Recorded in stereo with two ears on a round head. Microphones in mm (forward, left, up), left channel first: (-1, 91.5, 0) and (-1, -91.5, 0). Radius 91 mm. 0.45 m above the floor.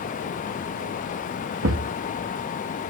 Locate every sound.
1.6 s a thud: 80° right, 2.5 m